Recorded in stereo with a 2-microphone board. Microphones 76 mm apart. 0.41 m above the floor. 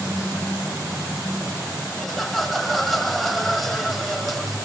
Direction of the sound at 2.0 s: Centre (ahead or behind).